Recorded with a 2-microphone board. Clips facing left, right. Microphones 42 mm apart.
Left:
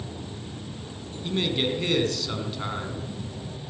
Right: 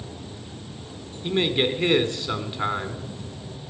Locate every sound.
1.2 s a man speaking: 25° right (ahead or behind), 1.7 m